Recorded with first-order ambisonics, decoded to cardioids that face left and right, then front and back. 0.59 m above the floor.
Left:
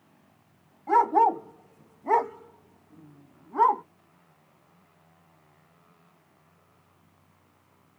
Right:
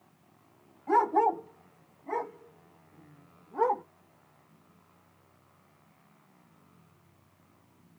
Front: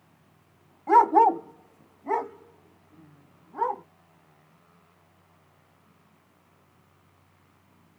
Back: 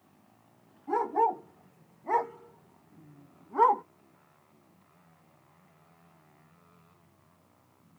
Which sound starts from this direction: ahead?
A dog barking, at 0.9 s.